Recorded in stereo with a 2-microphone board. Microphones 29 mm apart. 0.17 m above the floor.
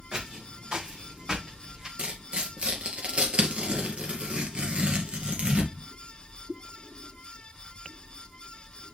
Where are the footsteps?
30° right (ahead or behind), 4.5 m; by 1.9 s 25° right (ahead or behind), 2.5 m.